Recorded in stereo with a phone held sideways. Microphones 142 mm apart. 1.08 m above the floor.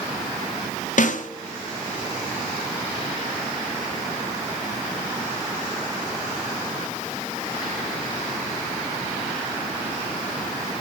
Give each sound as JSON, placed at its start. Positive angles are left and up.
{"t": 1.0, "sound": "a snare drum", "side_deg": 60, "distance_m": 0.6}